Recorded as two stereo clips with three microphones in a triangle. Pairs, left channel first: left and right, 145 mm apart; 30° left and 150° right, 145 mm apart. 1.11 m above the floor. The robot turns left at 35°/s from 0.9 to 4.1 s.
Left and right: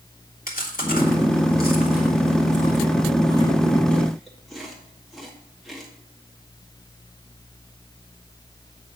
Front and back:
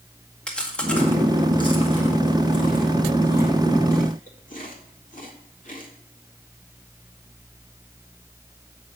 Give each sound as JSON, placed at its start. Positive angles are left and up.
{"t": 0.5, "sound": "chewing", "azimuth_deg": 115, "distance_m": 1.9}